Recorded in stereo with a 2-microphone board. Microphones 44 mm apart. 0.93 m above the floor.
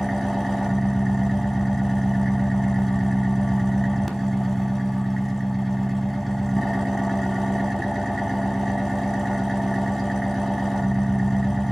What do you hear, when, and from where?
0.0 s an engine running: 5° left (ahead or behind), 1.0 m